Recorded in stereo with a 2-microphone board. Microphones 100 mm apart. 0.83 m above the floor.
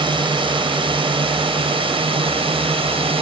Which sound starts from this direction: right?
A drone, at 0.0 s.